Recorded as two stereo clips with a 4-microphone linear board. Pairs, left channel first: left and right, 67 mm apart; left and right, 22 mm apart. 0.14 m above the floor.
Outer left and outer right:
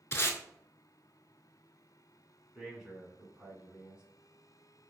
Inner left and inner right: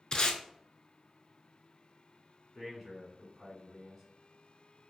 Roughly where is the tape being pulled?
Left.